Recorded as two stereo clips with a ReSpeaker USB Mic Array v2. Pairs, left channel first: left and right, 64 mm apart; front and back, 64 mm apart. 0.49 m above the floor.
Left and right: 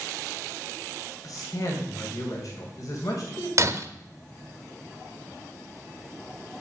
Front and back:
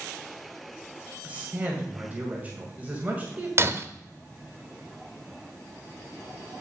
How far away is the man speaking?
About 2 m.